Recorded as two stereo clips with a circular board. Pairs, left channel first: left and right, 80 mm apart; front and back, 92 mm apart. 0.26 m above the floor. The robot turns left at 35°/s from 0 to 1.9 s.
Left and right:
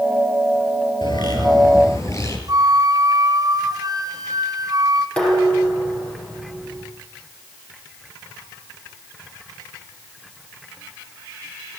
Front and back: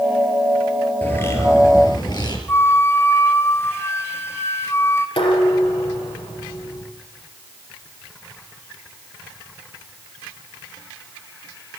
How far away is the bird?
About 4.5 m.